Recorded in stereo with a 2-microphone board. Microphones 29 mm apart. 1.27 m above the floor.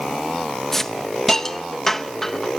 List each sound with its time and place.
0.7 s a hiss: 10° left (ahead or behind), 0.8 m